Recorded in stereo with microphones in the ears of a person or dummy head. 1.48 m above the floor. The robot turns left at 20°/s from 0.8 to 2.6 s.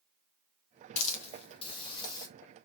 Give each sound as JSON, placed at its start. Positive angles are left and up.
{"t": 1.0, "sound": "a hiss", "side_deg": 45, "distance_m": 0.7}